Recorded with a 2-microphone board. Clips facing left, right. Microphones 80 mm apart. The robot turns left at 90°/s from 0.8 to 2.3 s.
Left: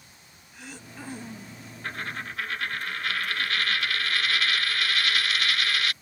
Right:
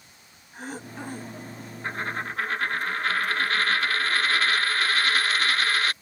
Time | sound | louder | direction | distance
0.5 | throat clearing | right 7 dB | 135° right | ?
1.8 | a dropped coin | right 4 dB | 35° right | ?